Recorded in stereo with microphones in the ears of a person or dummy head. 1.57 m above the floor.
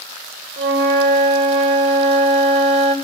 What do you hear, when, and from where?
0.6 s a flute: 35° right (ahead or behind), 3 m